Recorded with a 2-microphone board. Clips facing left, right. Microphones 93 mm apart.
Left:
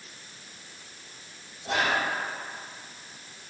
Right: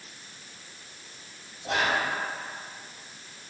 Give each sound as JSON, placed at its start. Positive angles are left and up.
{"t": 1.6, "sound": "whispering", "side_deg": -30, "distance_m": 1.1}